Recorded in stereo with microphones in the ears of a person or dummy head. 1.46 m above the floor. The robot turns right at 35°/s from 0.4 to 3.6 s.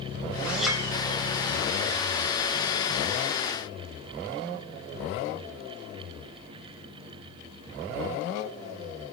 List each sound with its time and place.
0.5 s a clink: 5° right (ahead or behind), 4 m; by 0.8 s 5° left (ahead or behind), 4 m